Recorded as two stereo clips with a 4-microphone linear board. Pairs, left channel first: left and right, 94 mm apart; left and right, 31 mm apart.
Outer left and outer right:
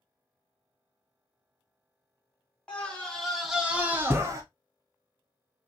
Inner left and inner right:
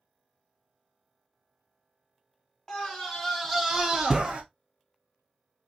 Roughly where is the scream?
Centre.